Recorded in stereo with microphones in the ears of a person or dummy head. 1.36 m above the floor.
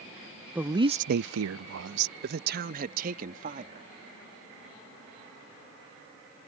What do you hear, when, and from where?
0.6 s a woman speaking: centre (ahead or behind); by 3.9 s 50° right (ahead or behind)